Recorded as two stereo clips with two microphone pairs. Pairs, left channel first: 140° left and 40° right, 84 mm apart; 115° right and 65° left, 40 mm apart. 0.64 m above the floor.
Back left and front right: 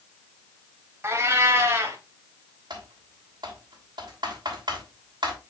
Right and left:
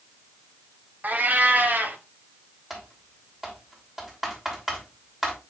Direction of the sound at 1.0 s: 20° left.